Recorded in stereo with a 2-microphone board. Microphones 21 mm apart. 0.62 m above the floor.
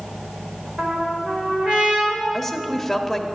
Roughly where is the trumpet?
Right.